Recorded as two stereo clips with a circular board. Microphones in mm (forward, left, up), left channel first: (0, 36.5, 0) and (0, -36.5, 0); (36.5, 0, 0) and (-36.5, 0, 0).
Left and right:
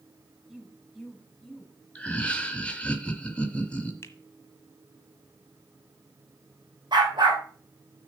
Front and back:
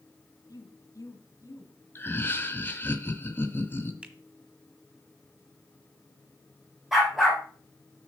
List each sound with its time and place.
0.5 s a woman speaking: 5° right, 2.5 m; by 1.8 s 10° left, 2 m
1.9 s laughter: 35° left, 1.1 m
4.0 s a finger snap: 115° left, 1.5 m
6.9 s a dog barking: 95° right, 3 m